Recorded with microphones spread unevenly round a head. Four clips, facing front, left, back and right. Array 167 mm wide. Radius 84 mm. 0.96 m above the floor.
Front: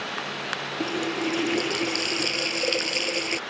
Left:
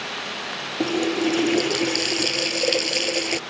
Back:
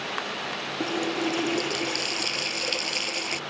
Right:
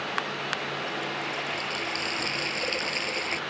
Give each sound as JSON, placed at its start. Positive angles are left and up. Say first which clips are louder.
{"t": 0.8, "sound": "a running tap", "louder": "left 11 dB, even", "azimuth_deg": 80}